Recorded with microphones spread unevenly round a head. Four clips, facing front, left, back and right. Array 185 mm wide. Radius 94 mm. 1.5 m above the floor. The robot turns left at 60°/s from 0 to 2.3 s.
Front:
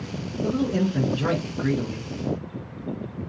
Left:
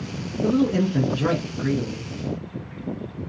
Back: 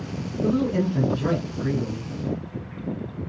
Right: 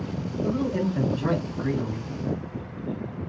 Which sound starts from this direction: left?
A man speaking, at 0.4 s.